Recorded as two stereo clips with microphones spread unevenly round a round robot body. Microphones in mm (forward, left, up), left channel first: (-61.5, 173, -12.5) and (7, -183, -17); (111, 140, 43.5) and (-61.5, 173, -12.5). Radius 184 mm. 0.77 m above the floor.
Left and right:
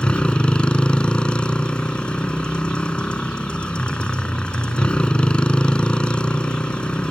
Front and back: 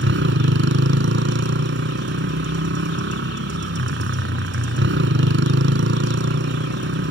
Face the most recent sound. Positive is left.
turn(degrees=-170)